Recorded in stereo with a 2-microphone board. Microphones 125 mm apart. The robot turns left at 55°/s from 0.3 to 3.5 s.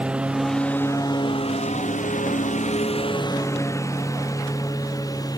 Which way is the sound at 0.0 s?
10° right (ahead or behind).